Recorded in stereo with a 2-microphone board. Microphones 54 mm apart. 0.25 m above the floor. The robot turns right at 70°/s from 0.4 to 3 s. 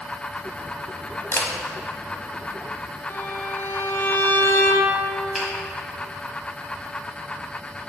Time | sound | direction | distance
1.3 | a camera shutter | 45° left (ahead or behind) | 0.6 m
3.1 | a violin | 45° left (ahead or behind) | 0.5 m
5.3 | a finger snap | 5° right (ahead or behind) | 1.7 m